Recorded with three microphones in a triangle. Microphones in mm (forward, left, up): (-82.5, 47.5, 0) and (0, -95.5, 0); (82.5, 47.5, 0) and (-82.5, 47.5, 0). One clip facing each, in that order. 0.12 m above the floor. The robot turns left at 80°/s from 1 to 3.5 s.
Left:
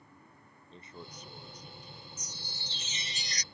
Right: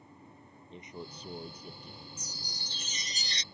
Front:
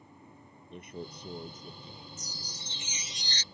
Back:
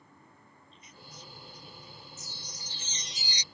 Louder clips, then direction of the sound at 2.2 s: Right 1 dB, front 2 dB; 15° right.